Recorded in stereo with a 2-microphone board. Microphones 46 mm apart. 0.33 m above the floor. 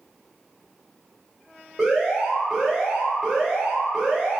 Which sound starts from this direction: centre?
An alarm, at 1.8 s.